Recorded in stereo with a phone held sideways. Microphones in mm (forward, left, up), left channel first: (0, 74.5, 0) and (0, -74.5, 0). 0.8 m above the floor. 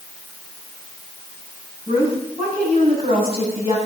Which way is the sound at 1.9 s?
40° right (ahead or behind).